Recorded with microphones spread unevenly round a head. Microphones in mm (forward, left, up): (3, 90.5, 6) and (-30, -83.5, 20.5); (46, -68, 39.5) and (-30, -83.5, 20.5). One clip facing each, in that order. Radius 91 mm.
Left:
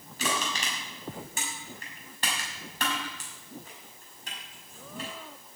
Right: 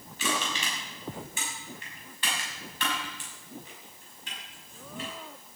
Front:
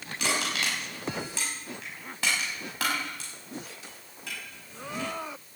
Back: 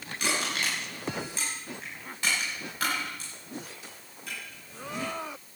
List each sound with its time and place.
0.2 s crushing: 25° left, 6 m